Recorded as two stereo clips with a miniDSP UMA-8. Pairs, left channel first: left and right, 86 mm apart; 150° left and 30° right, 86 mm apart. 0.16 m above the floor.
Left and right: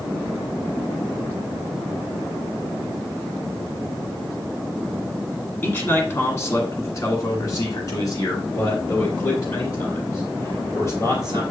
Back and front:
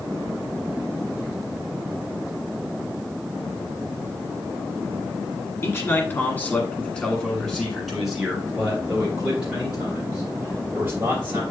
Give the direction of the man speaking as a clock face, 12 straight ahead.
7 o'clock.